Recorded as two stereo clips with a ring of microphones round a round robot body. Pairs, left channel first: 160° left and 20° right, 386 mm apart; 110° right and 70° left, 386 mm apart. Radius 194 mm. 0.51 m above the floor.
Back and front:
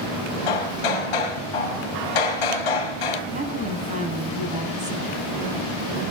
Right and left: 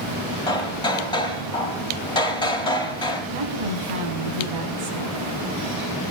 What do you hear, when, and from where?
0.5 s hammering: 170° left, 4 m
3.3 s a woman speaking: 50° left, 5 m